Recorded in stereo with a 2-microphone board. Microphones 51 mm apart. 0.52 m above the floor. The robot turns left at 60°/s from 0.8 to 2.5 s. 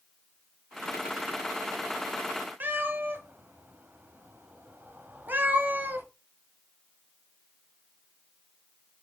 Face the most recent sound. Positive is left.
turn(degrees=-40)  # may be behind; listen again after turning